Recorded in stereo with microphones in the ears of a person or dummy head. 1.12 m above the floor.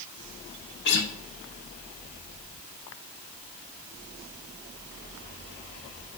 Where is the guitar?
60° left (ahead or behind), 0.8 m.